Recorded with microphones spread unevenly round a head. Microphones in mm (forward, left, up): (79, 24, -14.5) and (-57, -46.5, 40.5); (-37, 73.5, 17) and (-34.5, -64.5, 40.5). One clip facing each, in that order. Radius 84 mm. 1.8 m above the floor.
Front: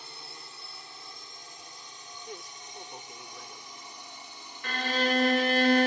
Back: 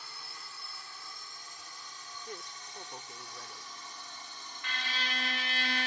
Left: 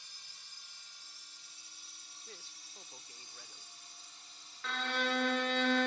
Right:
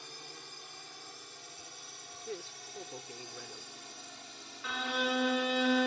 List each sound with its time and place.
0.0 s a drone: 40° right; by 5.9 s 50° right
2.3 s a man speaking: 60° right
4.6 s a violin: 25° right